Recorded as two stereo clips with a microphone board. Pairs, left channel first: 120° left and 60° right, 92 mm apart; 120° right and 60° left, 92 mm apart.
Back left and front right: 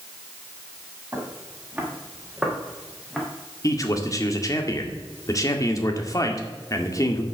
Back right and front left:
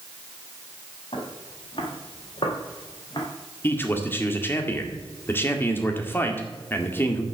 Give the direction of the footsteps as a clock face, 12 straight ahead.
4 o'clock.